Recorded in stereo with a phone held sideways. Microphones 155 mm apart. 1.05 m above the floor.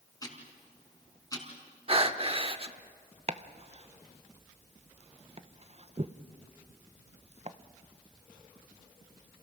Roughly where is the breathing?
Right.